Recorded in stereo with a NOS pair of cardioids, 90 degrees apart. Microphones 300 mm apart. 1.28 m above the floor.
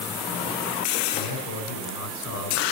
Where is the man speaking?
65° left, 5 m.